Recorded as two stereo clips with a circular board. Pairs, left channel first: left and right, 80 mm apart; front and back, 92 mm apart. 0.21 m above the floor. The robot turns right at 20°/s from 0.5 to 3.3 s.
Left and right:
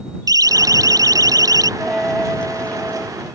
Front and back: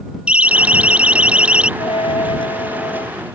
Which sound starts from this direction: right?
A siren, at 0.3 s.